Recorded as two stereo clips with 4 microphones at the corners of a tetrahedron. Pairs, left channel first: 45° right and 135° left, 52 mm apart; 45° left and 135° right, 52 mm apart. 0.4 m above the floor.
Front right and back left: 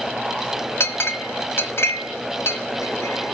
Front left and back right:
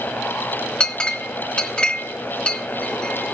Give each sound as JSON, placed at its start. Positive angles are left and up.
{"t": 0.8, "sound": "a clink", "azimuth_deg": -25, "distance_m": 1.1}